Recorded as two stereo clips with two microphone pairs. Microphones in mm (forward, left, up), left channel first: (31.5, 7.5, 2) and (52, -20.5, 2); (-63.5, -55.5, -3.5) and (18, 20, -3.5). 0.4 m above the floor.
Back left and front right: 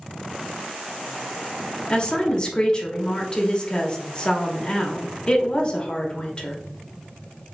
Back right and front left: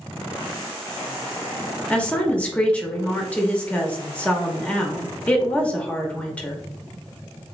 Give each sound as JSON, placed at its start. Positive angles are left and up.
{"t": 1.9, "sound": "a woman speaking", "azimuth_deg": 160, "distance_m": 0.9}